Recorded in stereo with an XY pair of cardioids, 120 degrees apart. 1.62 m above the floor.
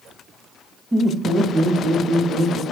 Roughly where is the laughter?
Ahead.